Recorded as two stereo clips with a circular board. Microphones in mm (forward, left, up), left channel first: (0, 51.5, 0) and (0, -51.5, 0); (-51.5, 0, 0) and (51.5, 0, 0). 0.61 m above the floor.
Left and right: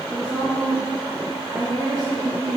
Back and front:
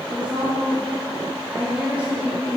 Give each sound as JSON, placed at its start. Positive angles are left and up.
{"t": 0.1, "sound": "a woman speaking", "azimuth_deg": -70, "distance_m": 1.0}